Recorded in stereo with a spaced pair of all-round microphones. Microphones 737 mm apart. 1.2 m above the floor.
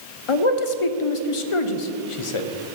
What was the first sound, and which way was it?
A man speaking, 50° left (ahead or behind).